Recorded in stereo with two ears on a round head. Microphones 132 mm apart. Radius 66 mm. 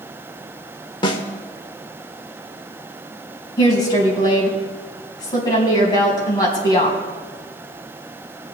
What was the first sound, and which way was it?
A snare drum, 30° left (ahead or behind).